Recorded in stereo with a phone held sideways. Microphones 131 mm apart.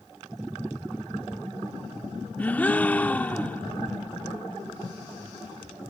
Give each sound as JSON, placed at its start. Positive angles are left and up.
{"t": 2.4, "sound": "a gasp", "side_deg": 10}